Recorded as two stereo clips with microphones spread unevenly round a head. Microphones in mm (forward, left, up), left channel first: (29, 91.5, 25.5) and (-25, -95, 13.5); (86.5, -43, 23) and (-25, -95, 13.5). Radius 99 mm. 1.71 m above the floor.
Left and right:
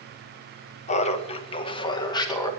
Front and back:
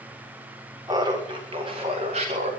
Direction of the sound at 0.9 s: 130° left.